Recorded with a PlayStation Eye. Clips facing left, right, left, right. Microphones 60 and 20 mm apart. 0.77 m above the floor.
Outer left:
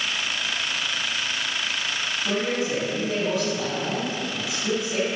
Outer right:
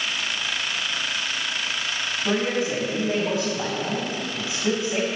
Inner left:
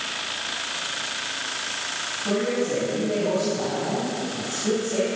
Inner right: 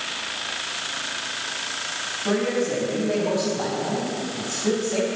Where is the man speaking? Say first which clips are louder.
Outer right 2 dB, inner right 1 dB; 30° right (ahead or behind), 4.5 m.